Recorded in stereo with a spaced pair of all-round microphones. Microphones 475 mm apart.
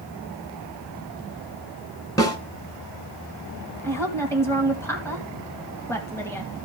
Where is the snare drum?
5° left (ahead or behind), 2.5 m.